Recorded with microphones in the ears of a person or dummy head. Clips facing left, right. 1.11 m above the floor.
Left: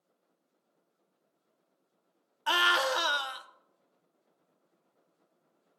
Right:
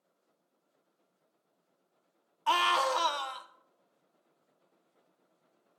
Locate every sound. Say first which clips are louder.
2.5 s a scream: right 1 dB; 10° left (ahead or behind), 0.8 m